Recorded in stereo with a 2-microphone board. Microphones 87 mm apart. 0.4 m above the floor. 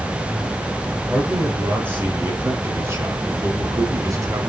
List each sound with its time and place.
1.1 s a man speaking: 20° right (ahead or behind), 5.5 m; by 4.5 s 45° right (ahead or behind), 3 m